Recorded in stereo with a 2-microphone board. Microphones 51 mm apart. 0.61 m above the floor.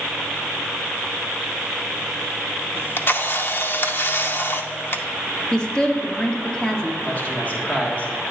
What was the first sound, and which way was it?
A camera shutter, 45° left (ahead or behind).